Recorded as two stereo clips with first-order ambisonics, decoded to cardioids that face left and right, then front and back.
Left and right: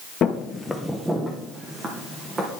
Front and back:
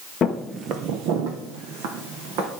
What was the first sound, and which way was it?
Footsteps, 50° left.